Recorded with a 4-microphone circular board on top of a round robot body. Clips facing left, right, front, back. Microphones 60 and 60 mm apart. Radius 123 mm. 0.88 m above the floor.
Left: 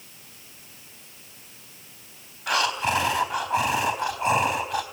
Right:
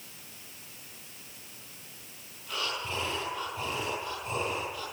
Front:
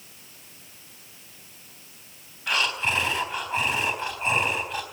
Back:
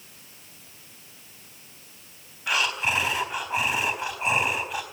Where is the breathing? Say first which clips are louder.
Left 11 dB, even; 100° left, 3.5 m.